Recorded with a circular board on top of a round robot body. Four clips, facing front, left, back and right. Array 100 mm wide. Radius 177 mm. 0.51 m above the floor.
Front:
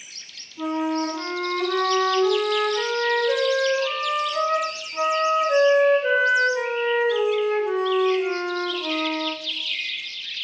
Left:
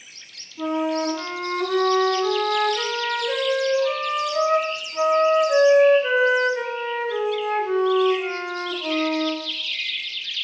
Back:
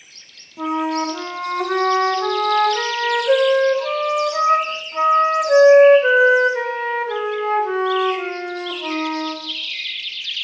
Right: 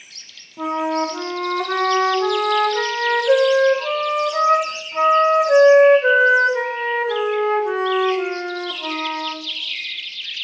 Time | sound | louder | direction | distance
0.6 | a flute | right 2 dB, back 3 dB | 130° right | 1.9 m